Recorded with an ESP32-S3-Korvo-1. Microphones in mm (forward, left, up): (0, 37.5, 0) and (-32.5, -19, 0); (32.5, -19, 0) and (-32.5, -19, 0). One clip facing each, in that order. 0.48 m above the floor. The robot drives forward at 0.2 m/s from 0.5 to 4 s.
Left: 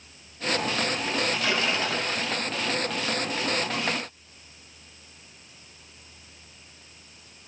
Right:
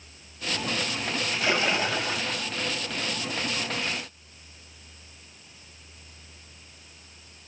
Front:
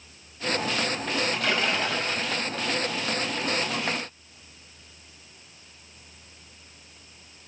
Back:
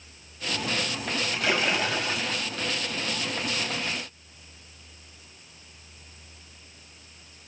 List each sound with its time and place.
1.3 s a splash: 115° right, 1.0 m; by 2.5 s 140° right, 1.1 m